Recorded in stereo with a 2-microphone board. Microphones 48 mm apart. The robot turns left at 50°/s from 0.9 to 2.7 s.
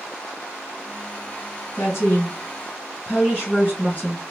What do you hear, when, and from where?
1.8 s a woman speaking: 80° left, 3 m; by 4.2 s 35° left, 3 m